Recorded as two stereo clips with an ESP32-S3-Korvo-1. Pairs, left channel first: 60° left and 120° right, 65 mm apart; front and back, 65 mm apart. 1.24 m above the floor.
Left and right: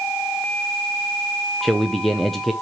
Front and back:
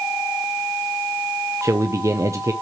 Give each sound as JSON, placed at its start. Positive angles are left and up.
{"t": 1.6, "sound": "a man speaking", "azimuth_deg": 145, "distance_m": 0.7}